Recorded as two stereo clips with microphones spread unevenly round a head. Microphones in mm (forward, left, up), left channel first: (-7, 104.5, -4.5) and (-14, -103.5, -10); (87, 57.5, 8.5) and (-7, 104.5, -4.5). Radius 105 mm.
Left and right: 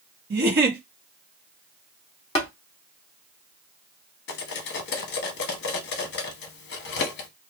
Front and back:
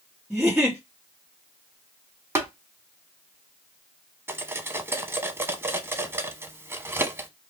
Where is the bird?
I don't hear a bird.